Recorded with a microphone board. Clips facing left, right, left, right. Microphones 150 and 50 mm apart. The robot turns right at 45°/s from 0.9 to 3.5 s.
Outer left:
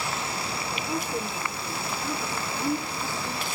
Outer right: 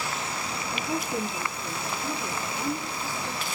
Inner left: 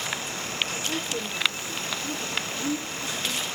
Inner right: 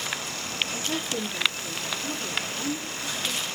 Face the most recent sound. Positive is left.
turn(degrees=50)